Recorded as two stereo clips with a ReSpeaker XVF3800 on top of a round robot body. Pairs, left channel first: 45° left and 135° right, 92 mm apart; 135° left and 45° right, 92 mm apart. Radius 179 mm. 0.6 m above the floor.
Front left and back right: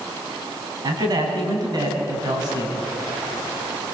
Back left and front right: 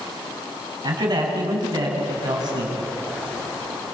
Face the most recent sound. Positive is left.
turn(degrees=-90)